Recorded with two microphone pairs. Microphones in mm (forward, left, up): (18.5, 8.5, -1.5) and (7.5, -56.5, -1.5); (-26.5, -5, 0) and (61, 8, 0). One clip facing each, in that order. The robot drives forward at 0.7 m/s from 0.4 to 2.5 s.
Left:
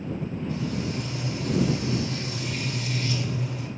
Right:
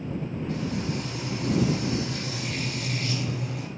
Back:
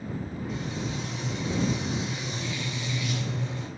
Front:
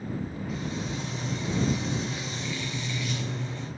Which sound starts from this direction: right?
Frying, at 0.5 s.